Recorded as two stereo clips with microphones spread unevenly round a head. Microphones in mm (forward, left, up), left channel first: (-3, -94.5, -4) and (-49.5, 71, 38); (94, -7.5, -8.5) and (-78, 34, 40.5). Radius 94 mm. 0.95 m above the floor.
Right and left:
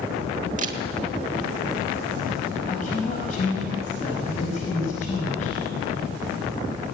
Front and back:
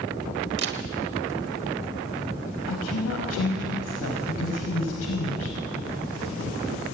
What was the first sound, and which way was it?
A camera shutter, 145° left.